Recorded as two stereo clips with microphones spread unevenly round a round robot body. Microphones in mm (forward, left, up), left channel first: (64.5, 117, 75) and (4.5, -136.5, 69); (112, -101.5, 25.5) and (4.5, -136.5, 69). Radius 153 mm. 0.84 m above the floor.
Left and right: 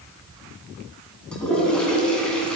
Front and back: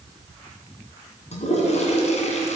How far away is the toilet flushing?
About 2.5 m.